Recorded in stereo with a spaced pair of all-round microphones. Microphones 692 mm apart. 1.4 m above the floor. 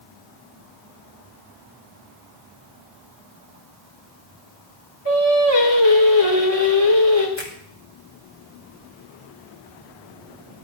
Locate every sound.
5.0 s singing: 40° left (ahead or behind), 3.5 m
7.4 s a finger snap: 40° left (ahead or behind), 3.5 m